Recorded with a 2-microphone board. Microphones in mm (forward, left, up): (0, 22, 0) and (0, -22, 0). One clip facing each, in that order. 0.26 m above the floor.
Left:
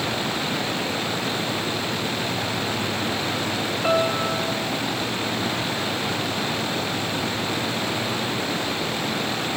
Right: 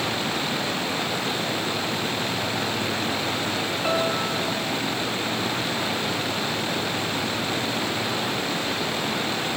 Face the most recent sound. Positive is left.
turn(degrees=15)  # may be behind; listen again after turning